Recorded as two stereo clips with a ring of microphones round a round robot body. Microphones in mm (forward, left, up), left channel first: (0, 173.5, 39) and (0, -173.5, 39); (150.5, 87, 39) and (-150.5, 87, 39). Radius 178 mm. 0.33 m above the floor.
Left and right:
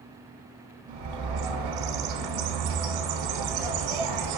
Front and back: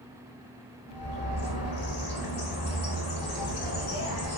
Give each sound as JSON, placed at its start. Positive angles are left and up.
{"t": 0.9, "sound": "a bird", "azimuth_deg": -65, "distance_m": 0.7}